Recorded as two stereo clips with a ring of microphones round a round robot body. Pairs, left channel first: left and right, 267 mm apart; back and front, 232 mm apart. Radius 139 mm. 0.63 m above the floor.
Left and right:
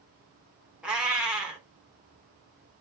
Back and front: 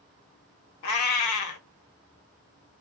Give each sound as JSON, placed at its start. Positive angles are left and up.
{"t": 0.8, "sound": "a cat meowing", "azimuth_deg": -175, "distance_m": 0.6}